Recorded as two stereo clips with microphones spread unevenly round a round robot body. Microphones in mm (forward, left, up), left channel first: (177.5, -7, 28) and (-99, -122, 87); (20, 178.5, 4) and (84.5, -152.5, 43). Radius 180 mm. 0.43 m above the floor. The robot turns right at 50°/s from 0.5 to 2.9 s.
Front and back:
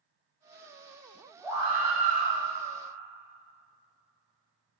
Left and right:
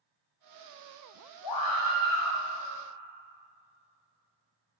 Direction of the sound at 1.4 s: 110° left.